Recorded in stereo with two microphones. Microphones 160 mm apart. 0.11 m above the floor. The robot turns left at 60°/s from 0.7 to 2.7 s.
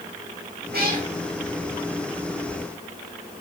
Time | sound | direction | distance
0.7 | a cat meowing | 75° right (ahead or behind) | 2 m